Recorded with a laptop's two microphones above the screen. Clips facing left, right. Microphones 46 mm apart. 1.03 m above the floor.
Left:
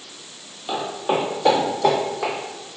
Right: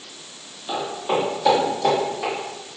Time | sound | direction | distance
0.7 | footsteps | 25° left (ahead or behind) | 1.8 m